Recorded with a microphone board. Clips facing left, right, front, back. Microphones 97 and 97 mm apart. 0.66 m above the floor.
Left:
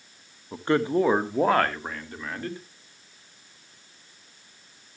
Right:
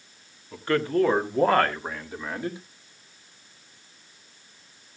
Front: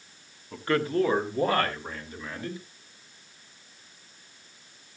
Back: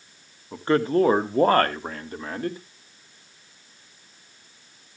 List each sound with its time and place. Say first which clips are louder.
0.5 s a man speaking: left 1 dB, back 5 dB; 130° left, 1.2 m; by 2.6 s 165° right, 2 m